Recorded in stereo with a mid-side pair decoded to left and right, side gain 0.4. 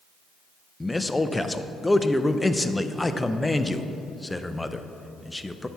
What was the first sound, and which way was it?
A man speaking, 15° left.